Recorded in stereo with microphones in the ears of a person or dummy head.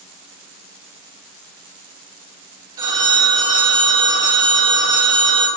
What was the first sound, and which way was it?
A phone ringing, 20° right (ahead or behind).